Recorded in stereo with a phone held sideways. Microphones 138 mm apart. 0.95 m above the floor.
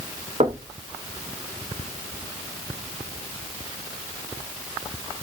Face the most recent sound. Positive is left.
turn(degrees=-50)  # may be behind; listen again after turning